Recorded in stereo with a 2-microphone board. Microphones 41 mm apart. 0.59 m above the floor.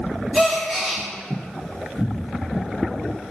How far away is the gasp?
About 2.5 m.